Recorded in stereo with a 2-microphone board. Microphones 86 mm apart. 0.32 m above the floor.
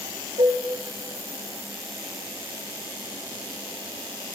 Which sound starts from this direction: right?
Dishes clattering, at 0.4 s.